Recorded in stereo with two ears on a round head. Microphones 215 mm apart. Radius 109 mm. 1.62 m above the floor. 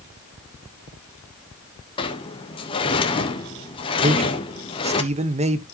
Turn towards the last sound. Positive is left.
turn(degrees=-30)  # may be behind; listen again after turning